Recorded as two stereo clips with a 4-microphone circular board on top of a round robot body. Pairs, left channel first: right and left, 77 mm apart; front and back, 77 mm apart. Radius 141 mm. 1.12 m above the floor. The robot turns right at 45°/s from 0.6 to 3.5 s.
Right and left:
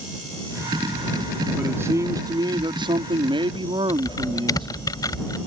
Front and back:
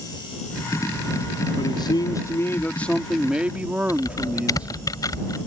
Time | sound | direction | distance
1.6 | a man speaking | 20° left | ?
3.9 | typing on a keyboard | 45° right | ?